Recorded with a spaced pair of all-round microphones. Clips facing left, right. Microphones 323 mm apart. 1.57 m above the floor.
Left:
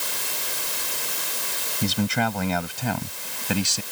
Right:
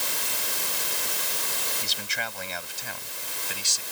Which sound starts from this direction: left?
A man speaking, at 1.8 s.